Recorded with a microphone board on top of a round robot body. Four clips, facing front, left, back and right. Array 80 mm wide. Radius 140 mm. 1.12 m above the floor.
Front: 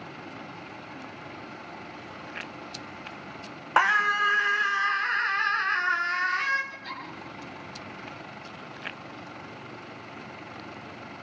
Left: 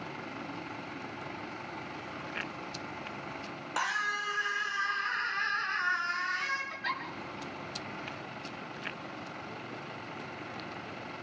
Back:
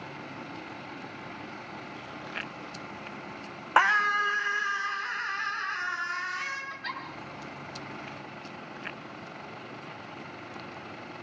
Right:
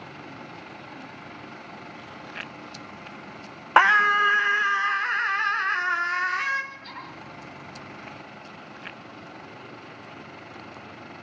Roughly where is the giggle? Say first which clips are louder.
Left 4 dB, back 2 dB; behind left.